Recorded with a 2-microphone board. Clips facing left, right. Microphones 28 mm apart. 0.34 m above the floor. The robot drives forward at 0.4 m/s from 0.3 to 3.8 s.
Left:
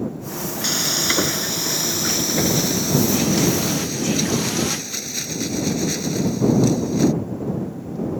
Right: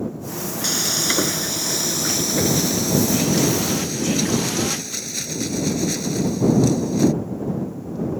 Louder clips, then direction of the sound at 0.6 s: Left 1 dB; 10° left (ahead or behind).